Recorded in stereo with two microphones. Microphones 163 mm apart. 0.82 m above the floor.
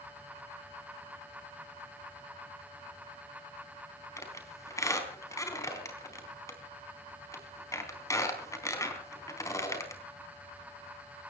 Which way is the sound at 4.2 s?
20° left (ahead or behind).